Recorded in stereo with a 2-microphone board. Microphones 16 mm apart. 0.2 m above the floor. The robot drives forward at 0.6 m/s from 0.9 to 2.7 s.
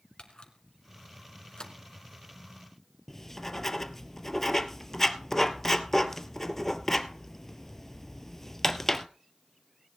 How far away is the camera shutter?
About 1.7 m.